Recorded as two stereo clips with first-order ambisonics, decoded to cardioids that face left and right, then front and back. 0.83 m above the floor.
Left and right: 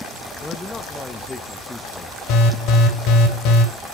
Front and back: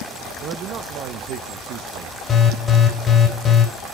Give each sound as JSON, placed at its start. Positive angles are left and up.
{"t": 0.4, "sound": "a man speaking", "azimuth_deg": 165, "distance_m": 0.5}
{"t": 2.3, "sound": "an alarm", "azimuth_deg": 65, "distance_m": 2.0}